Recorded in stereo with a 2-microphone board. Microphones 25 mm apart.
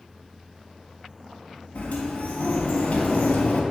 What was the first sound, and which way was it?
A sliding door, 75° left (ahead or behind).